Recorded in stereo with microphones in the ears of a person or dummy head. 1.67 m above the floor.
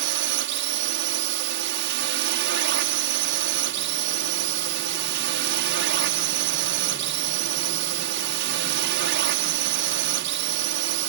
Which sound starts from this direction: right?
A drone, at 0.0 s.